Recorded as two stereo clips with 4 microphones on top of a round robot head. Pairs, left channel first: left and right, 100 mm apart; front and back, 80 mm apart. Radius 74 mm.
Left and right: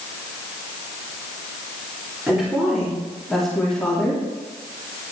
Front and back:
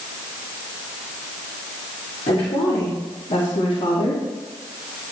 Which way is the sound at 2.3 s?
10° right.